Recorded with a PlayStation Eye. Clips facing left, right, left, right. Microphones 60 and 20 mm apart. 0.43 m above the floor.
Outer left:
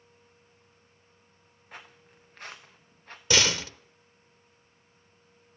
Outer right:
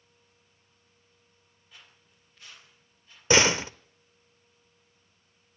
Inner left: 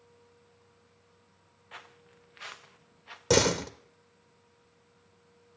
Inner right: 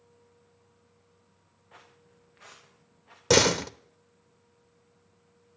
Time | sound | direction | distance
1.7 | footsteps | 55° left (ahead or behind) | 2 m
3.3 | a door slam | 30° right (ahead or behind) | 0.7 m